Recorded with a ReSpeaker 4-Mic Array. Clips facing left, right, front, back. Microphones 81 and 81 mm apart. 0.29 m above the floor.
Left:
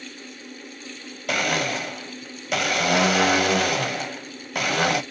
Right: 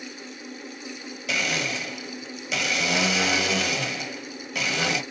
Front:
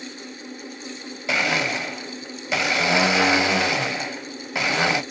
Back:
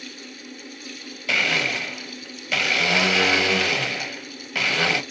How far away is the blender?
About 0.6 m.